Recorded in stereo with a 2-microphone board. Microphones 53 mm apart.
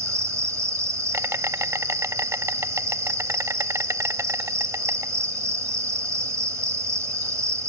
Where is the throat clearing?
No throat clearing in this recording.